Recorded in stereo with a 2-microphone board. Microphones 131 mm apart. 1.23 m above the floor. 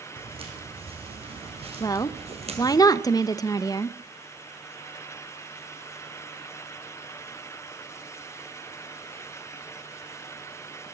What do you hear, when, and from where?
0.2 s footsteps: 45° right (ahead or behind), 4.5 m; by 2.8 s 50° right (ahead or behind), 2.5 m
1.8 s a woman speaking: 30° left (ahead or behind), 0.8 m